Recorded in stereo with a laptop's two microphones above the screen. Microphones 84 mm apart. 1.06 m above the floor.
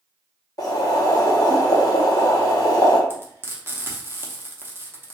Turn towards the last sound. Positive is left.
turn(degrees=-25)  # may be behind; listen again after turning